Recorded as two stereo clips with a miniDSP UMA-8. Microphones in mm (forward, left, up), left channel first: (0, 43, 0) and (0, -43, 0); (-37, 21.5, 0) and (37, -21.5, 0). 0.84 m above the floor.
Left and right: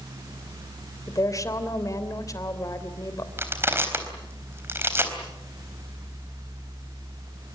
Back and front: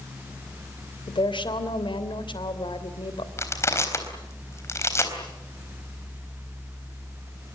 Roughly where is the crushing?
Behind right.